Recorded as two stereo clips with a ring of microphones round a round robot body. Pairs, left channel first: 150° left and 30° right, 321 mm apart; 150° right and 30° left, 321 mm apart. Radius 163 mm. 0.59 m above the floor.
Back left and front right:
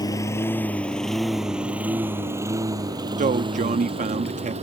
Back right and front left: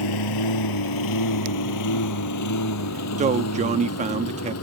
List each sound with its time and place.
0.0 s a lawn mower: 130° right; by 4.6 s 100° right
3.2 s a man speaking: straight ahead